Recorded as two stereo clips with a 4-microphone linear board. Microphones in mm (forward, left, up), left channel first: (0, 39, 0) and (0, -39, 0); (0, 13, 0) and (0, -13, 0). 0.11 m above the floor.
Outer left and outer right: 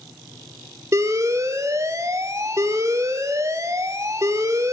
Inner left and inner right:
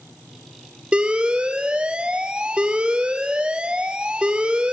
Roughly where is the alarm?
Right.